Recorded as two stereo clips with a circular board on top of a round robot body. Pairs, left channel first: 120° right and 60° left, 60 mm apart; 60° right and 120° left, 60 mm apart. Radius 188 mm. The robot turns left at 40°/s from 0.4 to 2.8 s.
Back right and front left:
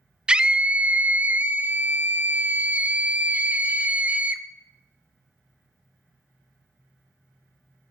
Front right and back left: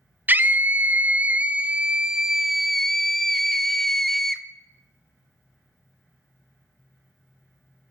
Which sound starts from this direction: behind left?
A scream, at 0.3 s.